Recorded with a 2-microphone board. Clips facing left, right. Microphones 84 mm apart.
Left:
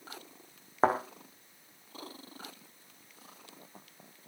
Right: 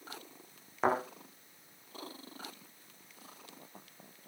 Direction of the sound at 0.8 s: 35° left (ahead or behind).